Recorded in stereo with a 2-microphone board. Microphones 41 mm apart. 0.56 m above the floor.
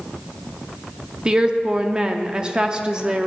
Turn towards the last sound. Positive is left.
turn(degrees=-20)  # may be behind; listen again after turning